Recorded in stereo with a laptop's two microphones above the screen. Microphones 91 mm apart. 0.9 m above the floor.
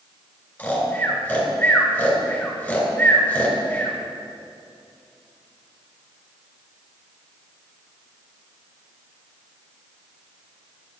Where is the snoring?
15° left (ahead or behind), 3 m.